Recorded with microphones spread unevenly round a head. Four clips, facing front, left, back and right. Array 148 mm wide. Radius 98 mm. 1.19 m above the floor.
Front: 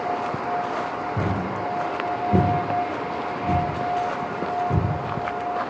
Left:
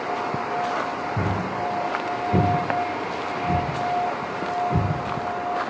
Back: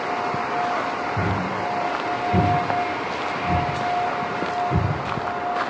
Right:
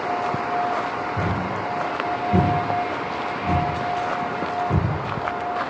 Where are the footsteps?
80° left, 1.3 m; by 4.8 s 45° right, 1.9 m.